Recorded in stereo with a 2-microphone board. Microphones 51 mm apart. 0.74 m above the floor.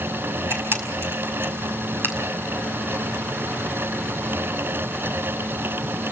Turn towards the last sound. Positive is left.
turn(degrees=-50)  # may be behind; listen again after turning